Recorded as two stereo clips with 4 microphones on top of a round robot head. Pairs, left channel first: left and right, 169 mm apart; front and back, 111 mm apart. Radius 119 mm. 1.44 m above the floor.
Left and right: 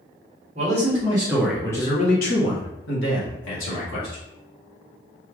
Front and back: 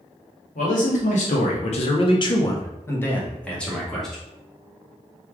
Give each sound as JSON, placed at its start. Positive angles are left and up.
{"t": 0.6, "sound": "a man speaking", "azimuth_deg": -35, "distance_m": 0.9}